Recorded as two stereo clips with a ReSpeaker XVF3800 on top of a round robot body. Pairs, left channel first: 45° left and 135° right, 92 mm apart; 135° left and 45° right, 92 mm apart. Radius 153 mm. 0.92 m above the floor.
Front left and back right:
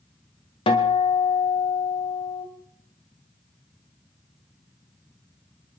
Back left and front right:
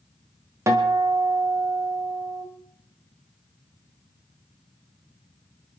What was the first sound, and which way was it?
A guitar, 15° left.